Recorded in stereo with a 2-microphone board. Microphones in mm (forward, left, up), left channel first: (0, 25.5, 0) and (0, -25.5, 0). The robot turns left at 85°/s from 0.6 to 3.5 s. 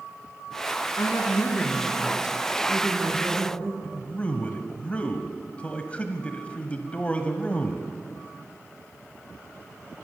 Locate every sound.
1.0 s a woman speaking: 85° left, 3 m; by 3.7 s 130° right, 3 m
3.8 s a man speaking: 25° left (ahead or behind), 1.1 m